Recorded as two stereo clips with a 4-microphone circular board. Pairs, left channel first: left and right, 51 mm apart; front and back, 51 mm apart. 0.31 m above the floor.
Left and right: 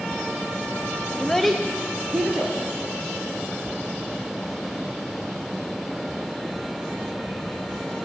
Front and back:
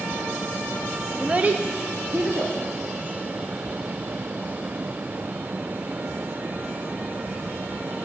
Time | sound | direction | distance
1.2 | a child speaking | 140° left | 0.5 m